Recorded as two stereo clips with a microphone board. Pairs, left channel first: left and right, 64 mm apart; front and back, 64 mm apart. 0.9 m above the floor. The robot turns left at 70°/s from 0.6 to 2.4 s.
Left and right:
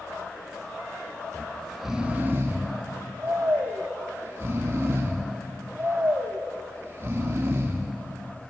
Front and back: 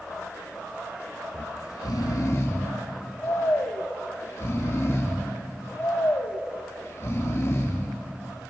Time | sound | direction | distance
1.3 | snoring | 30° left | 1.8 m